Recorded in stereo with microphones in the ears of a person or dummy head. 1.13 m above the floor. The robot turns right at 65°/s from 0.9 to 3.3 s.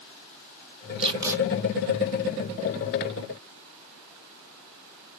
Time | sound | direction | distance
1.0 | tape being pulled | 25° right (ahead or behind) | 0.7 m